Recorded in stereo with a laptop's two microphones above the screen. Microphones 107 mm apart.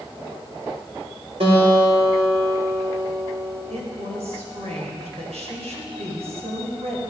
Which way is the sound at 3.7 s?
80° right.